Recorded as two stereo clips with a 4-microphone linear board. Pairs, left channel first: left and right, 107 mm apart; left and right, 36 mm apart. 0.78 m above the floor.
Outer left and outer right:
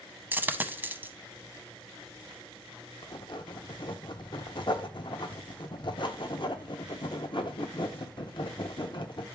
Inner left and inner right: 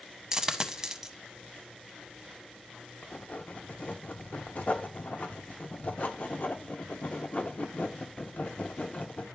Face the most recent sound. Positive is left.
turn(degrees=50)  # may be behind; listen again after turning